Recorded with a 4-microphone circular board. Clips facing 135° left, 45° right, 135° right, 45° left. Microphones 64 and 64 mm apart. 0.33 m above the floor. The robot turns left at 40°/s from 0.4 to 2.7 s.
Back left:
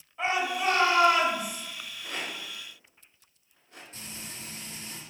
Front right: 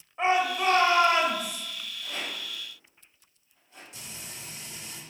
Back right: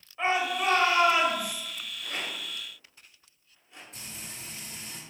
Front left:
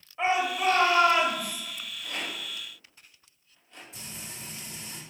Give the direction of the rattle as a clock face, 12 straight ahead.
6 o'clock.